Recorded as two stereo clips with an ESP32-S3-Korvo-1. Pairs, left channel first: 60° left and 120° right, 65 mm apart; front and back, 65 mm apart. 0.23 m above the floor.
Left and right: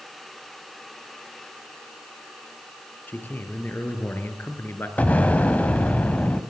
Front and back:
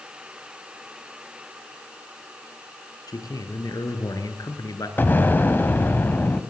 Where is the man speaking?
Straight ahead, 4.5 m; by 4.9 s 5° left, 3.5 m.